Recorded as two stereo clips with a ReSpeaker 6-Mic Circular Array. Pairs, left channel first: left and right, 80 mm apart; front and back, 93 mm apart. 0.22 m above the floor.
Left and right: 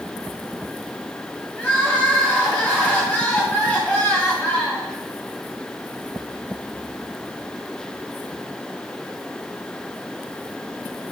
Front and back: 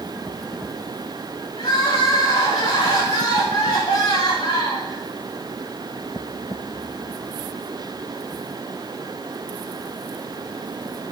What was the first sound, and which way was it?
Crying, 20° left.